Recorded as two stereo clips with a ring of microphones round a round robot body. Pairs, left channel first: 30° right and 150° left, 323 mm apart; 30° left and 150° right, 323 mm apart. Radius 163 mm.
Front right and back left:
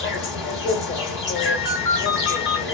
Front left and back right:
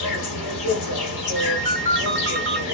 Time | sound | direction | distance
0.0 | an insect | 20° left | 0.9 m
1.4 | a ringtone | 80° right | 1.8 m